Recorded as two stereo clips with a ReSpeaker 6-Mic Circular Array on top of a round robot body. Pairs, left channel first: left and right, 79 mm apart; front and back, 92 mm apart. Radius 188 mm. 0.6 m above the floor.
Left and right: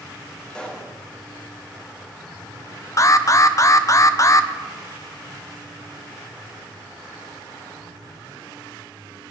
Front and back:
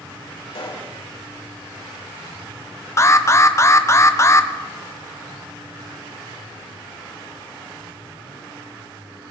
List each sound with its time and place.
0.5 s a pop: 10° left, 3 m
3.0 s an alarm: 50° left, 0.9 m